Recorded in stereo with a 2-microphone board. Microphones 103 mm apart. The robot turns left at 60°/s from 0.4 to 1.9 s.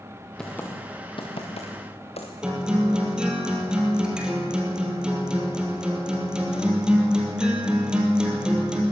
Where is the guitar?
10° right (ahead or behind), 3 m.